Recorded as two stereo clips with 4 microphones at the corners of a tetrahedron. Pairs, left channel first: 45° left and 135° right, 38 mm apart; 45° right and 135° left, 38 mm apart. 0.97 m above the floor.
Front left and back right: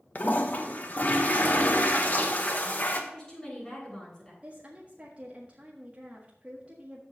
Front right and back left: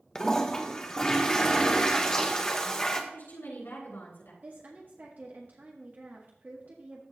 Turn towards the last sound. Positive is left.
turn(degrees=170)